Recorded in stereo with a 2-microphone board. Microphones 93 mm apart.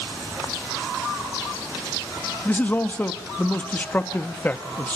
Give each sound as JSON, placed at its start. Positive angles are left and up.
{"t": 2.5, "sound": "a man speaking", "side_deg": 20, "distance_m": 0.8}